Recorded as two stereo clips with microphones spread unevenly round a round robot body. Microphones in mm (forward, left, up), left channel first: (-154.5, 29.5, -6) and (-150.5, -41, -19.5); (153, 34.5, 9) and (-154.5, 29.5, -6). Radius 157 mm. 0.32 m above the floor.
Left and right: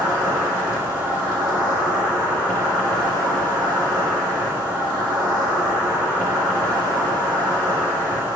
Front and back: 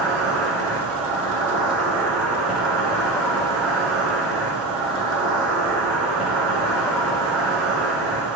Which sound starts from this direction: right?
An insect, at 0.0 s.